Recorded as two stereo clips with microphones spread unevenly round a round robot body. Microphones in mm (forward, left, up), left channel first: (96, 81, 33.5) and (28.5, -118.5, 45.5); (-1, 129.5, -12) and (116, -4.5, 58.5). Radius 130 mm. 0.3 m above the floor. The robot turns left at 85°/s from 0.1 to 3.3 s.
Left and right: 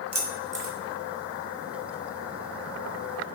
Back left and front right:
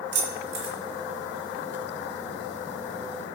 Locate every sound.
0.1 s keys jangling: 25° right, 1.3 m; by 0.7 s 75° right, 1.3 m